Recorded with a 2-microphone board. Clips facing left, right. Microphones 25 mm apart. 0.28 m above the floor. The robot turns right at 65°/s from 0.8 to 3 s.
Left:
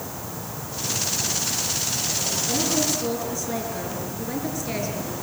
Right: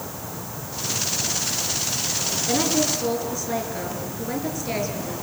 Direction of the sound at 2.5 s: 40° right.